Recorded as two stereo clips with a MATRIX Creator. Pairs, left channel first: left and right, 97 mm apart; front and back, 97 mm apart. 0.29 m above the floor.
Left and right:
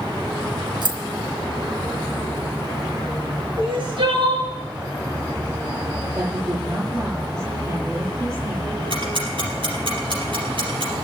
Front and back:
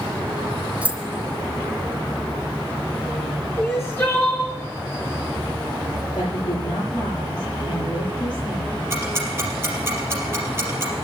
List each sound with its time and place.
0.8 s keys jangling: 105° right, 1.6 m
3.6 s crying: 65° right, 5 m
6.1 s a woman speaking: 30° right, 8 m
8.9 s ticking: 115° right, 4 m